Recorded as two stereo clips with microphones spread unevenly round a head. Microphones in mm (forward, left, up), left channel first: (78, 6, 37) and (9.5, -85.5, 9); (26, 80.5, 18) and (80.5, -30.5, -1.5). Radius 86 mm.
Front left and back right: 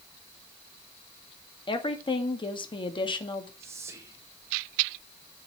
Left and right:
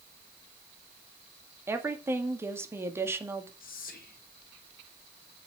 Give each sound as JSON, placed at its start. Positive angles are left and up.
{"t": 1.7, "sound": "a woman speaking", "azimuth_deg": 10, "distance_m": 2.0}
{"t": 3.6, "sound": "whispering", "azimuth_deg": 160, "distance_m": 1.6}